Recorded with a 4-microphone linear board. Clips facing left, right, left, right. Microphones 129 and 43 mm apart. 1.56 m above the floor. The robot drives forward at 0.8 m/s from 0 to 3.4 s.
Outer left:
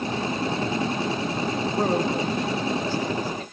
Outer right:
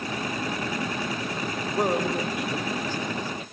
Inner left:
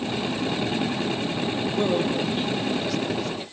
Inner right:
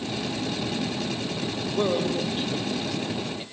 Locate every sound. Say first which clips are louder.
1.8 s a man speaking: even, even; 15° right (ahead or behind), 6.5 m